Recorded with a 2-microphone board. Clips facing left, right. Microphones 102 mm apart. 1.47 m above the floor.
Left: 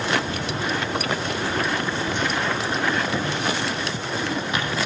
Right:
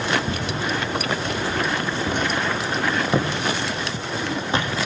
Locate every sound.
0.3 s footsteps: 65° right (ahead or behind), 4 m; by 4.8 s 30° right (ahead or behind), 3 m